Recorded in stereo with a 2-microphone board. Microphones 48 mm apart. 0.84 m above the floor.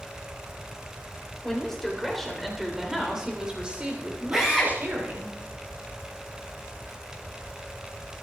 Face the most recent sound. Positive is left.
turn(degrees=-5)  # may be behind; listen again after turning